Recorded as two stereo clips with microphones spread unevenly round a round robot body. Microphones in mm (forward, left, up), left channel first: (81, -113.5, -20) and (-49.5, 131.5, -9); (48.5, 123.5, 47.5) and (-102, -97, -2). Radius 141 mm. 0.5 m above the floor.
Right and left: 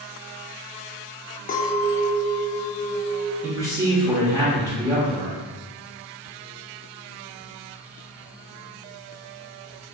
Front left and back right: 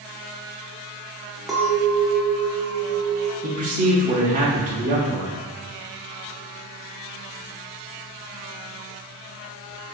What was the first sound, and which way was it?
A clink, 55° right.